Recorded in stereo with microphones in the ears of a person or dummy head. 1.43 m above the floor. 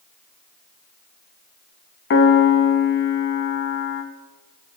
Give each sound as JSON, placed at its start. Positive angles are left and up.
{"t": 2.1, "sound": "a piano", "side_deg": 60, "distance_m": 0.6}